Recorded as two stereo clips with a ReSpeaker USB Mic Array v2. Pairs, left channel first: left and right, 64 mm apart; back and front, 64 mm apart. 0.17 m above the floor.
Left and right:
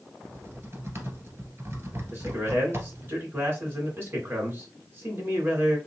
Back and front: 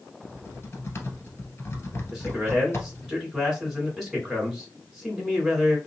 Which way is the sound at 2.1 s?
85° right.